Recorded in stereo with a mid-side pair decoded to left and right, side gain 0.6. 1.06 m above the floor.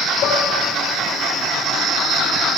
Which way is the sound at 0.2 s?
55° left.